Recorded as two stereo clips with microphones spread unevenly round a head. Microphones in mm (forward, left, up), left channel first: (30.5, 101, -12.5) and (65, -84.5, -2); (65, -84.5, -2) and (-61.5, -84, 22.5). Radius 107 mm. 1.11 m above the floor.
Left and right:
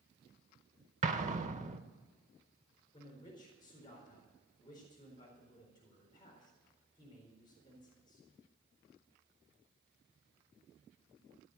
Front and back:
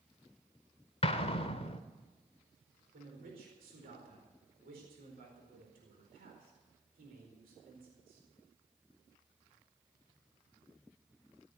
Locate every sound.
1.0 s an explosion: 40° right, 1.1 m
2.9 s a man speaking: 170° left, 4.5 m